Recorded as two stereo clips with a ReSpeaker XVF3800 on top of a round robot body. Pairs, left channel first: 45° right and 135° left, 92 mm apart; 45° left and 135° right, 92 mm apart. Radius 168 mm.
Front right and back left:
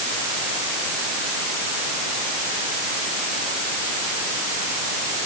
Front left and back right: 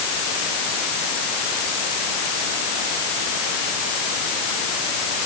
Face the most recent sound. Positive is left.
No sound to turn to.